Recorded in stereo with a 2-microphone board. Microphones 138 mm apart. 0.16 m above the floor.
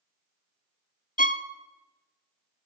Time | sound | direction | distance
1.2 | a violin | 75° left (ahead or behind) | 0.5 m